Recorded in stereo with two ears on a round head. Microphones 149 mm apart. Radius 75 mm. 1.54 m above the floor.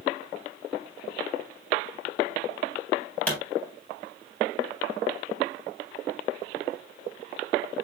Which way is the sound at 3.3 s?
10° left (ahead or behind).